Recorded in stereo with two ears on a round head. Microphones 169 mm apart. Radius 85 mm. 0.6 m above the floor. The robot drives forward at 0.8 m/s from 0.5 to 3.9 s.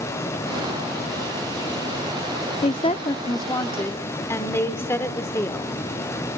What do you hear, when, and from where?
2.6 s a woman speaking: 30° left (ahead or behind), 0.6 m; by 5.8 s 15° left (ahead or behind), 1.3 m